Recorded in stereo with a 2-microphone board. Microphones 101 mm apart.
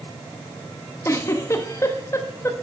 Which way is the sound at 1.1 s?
30° left (ahead or behind).